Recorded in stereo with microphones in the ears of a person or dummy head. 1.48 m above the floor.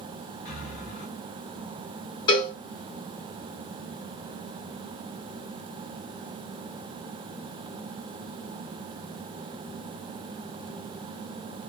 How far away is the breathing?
About 0.8 m.